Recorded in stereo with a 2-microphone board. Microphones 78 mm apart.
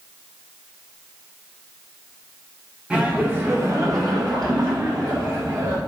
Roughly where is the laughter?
Centre.